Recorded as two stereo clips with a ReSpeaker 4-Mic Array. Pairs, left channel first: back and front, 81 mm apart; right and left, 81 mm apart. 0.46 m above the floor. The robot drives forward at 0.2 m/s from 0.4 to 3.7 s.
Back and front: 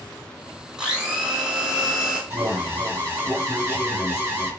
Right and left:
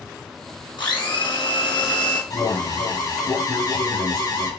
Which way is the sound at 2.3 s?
65° right.